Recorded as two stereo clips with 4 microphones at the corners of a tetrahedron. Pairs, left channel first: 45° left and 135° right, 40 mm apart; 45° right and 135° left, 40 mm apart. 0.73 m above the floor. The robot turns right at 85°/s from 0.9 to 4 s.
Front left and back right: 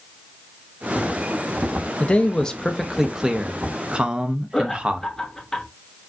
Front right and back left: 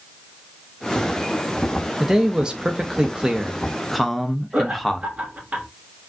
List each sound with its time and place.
2.0 s a man speaking: 60° left, 0.6 m; by 5.1 s 130° right, 0.6 m
4.5 s laughter: 115° left, 1.1 m